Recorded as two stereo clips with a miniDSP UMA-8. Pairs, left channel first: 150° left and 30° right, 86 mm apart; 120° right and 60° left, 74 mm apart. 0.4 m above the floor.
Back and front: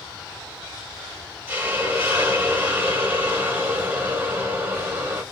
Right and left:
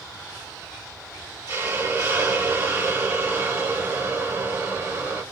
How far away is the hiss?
About 1.3 m.